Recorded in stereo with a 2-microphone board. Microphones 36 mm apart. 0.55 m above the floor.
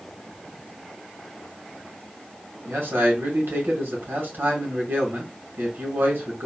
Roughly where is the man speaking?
Right.